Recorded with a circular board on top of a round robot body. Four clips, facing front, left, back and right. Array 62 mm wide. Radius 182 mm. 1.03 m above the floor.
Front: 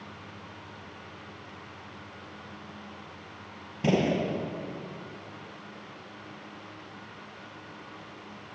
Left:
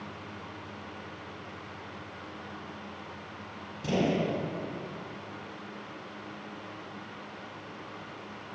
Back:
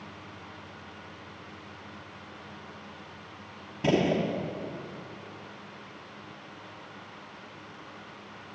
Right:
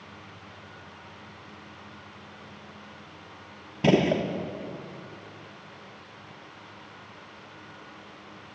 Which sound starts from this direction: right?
A gunshot, at 3.8 s.